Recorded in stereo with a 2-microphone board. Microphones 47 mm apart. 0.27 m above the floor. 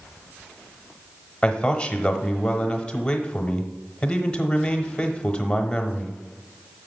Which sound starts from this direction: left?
A man speaking, at 1.4 s.